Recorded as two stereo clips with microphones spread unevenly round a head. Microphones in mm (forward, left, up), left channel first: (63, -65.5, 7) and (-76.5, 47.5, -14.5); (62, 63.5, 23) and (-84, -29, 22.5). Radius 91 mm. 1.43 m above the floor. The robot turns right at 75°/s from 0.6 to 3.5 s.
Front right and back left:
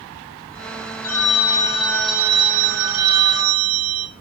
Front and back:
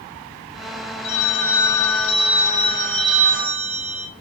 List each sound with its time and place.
1.0 s a phone ringing: 30° right, 2.5 m; by 4.1 s 155° left, 2.5 m